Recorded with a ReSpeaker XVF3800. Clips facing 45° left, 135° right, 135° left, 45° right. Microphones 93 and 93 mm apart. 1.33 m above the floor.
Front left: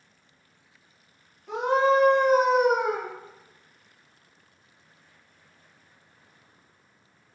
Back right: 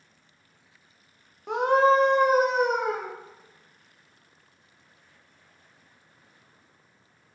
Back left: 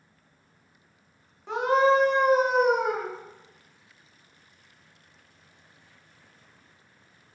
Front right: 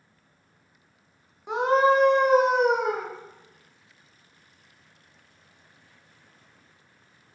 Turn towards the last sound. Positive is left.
turn(degrees=-30)